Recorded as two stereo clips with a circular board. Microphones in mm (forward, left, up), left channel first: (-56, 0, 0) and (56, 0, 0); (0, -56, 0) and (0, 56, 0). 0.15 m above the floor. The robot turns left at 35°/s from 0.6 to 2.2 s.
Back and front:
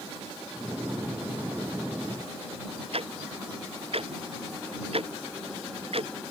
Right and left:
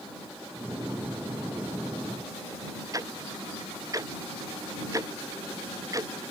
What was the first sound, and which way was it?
Ticking, 30° left.